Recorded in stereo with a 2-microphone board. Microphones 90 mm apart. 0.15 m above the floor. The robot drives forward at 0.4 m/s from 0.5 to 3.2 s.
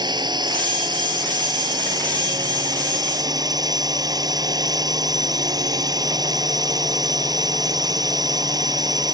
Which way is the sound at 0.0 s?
55° right (ahead or behind).